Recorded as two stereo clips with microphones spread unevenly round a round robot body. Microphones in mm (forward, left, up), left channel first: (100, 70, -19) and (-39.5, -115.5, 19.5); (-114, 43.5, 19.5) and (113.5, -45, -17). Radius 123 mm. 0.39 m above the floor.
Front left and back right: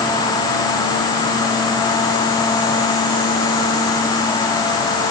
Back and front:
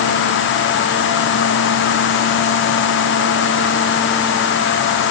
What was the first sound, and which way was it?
Only background noise.